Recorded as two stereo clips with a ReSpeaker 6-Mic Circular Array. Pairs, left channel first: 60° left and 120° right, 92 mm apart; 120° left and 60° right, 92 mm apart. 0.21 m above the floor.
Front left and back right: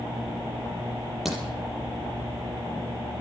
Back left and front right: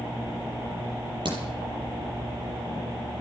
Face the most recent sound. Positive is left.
turn(degrees=-30)